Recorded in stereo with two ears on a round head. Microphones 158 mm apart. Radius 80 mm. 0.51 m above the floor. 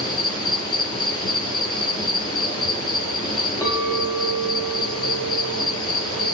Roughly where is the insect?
Left.